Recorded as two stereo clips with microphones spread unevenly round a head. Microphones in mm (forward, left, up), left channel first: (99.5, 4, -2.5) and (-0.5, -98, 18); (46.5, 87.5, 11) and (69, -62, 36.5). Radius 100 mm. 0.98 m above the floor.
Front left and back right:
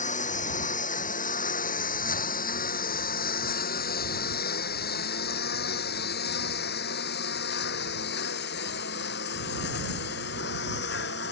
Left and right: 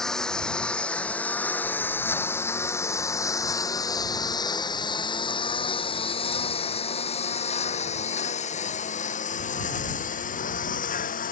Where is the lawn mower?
10° left; by 11.3 s 70° left.